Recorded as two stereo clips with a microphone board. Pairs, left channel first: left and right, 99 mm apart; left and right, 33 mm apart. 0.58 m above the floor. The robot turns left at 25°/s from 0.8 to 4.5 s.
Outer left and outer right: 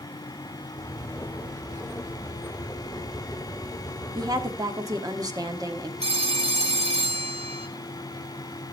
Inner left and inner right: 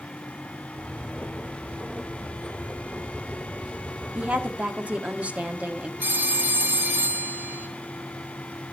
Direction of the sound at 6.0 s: 85° right.